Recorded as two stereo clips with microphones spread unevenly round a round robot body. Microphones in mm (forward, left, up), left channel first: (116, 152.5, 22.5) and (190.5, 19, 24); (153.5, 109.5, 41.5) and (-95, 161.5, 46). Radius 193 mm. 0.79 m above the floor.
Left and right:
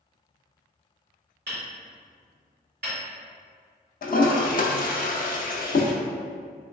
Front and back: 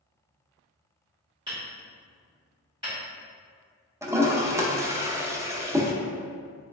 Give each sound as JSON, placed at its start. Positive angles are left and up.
{"t": 1.5, "sound": "hammering", "azimuth_deg": -115, "distance_m": 0.8}
{"t": 4.0, "sound": "a toilet flushing", "azimuth_deg": 90, "distance_m": 0.6}